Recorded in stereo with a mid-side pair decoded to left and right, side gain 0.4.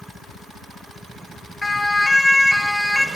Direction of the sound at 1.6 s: 20° left.